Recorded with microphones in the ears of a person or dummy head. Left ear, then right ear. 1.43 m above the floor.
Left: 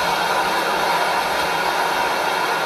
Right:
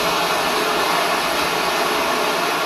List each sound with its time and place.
0.0 s running water: 20° right (ahead or behind), 1.0 m